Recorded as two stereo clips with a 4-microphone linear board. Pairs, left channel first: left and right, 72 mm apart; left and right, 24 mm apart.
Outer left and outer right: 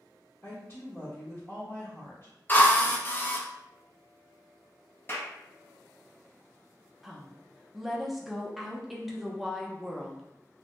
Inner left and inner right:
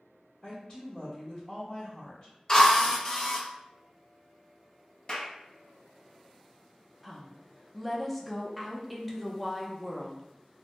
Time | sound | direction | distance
0.4 | a woman speaking | 45° left (ahead or behind) | 1.0 m
2.5 | a drill | 25° left (ahead or behind) | 0.5 m
5.1 | a clap | 35° left (ahead or behind) | 0.6 m
7.0 | a woman speaking | centre (ahead or behind) | 0.5 m